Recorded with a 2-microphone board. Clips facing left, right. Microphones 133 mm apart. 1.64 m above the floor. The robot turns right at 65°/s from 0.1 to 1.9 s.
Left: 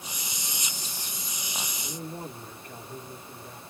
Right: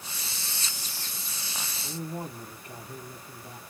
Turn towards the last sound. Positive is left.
turn(degrees=-20)  # may be behind; listen again after turning